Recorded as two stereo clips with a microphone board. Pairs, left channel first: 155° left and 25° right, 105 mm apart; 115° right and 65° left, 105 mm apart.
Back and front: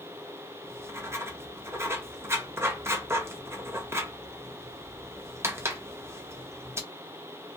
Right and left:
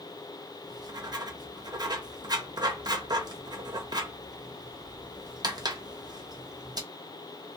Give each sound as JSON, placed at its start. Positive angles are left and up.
{"t": 0.6, "sound": "writing", "azimuth_deg": 35, "distance_m": 0.5}